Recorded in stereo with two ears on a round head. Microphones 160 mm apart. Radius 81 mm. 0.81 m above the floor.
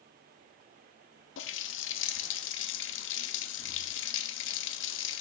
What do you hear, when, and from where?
1.4 s a running tap: 75° left (ahead or behind), 0.6 m